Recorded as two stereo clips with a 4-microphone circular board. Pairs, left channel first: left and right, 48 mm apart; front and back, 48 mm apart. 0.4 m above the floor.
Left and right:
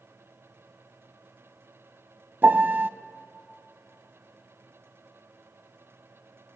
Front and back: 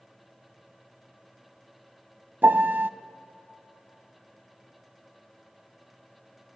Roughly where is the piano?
Behind right.